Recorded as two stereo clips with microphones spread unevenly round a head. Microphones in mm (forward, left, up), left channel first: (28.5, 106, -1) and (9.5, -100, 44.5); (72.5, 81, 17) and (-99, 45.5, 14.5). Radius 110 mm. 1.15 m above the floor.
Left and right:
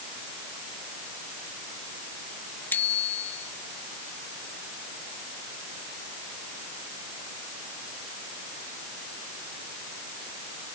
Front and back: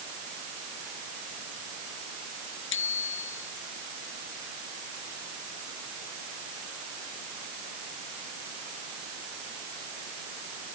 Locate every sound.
2.7 s a bicycle bell: 5° left